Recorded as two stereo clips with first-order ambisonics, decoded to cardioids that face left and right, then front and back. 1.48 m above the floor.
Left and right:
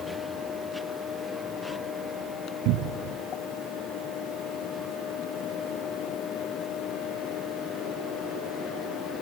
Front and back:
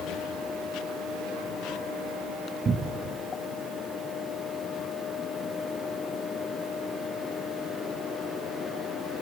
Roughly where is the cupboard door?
Right.